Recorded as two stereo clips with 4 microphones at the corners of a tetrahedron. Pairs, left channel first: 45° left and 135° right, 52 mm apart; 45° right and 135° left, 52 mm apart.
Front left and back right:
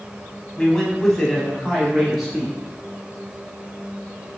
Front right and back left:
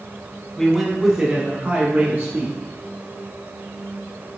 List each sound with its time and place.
0.6 s a man speaking: 10° left, 1.0 m; by 2.6 s 145° left, 1.6 m